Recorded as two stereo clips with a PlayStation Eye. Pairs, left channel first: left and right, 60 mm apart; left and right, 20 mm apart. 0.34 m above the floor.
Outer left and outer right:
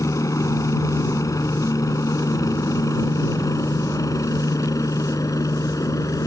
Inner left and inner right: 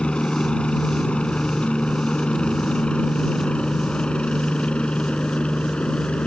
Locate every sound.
0.0 s a helicopter: 65° left (ahead or behind); by 6.3 s 70° left (ahead or behind)